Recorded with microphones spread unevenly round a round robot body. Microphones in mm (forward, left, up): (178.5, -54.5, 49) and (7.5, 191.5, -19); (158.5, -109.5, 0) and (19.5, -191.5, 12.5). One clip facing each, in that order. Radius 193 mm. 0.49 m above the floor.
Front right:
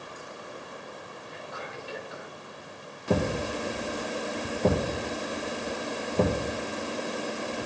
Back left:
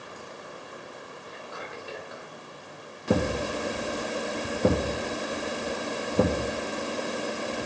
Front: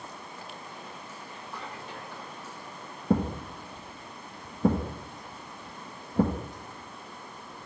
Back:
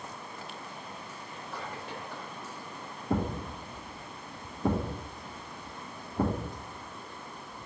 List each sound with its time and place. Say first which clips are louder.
1.3 s whispering: even, back 2 dB; 150° left, 3 m
3.1 s a thud: back left 1 dB, front 4 dB; 45° left, 1.6 m